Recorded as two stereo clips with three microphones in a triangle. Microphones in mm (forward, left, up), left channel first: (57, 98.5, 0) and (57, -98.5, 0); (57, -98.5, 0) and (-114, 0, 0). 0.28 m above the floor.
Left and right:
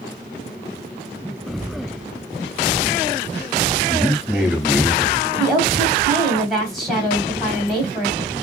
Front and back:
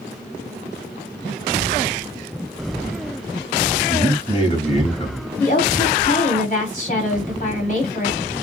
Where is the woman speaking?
Straight ahead, 2 m.